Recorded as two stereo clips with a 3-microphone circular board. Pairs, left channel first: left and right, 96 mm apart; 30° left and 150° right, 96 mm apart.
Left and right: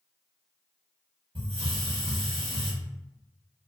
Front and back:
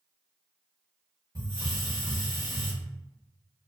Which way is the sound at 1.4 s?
95° right.